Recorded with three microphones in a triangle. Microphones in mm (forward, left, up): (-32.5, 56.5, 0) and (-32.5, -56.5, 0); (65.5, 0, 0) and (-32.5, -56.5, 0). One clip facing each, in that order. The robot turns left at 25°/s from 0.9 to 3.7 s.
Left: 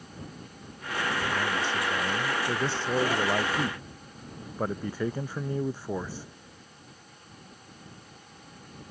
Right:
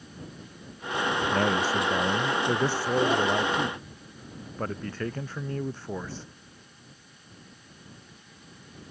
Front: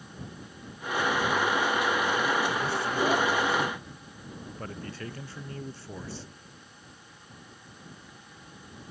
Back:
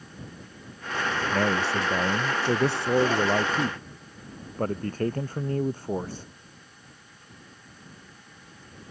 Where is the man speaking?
130° right; by 6.3 s 170° left.